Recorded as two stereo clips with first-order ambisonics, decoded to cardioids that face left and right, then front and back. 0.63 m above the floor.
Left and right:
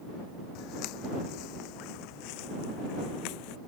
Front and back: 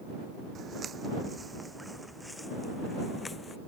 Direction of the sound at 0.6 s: 120° left.